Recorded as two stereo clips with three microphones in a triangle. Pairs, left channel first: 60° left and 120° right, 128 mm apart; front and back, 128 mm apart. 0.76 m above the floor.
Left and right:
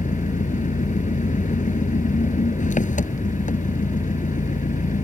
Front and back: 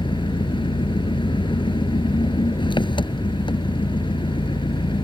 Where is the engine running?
50° left.